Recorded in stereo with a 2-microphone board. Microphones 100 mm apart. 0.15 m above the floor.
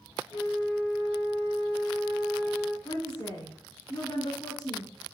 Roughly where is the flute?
Left.